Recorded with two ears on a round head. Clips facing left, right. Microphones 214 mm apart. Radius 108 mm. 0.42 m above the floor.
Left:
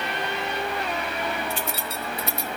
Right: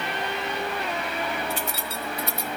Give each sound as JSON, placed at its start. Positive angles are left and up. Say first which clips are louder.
{"t": 1.5, "sound": "keys jangling", "louder": "even", "side_deg": 65, "distance_m": 1.4}